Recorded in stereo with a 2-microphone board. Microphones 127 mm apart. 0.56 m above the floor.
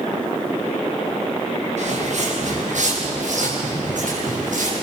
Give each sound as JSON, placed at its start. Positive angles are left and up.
{"t": 1.8, "sound": "footsteps", "side_deg": -65, "distance_m": 6.0}